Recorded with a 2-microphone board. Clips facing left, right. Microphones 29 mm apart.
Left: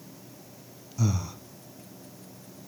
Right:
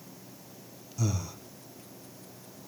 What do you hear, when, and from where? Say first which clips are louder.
1.0 s breathing: left 3 dB; 20° left (ahead or behind), 1.3 m